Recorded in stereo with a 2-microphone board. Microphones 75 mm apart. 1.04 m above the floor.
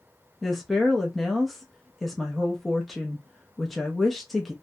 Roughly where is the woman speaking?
Centre.